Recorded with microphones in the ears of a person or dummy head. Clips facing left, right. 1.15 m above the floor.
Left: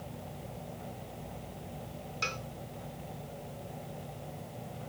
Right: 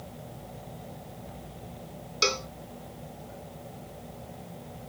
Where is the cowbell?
80° right.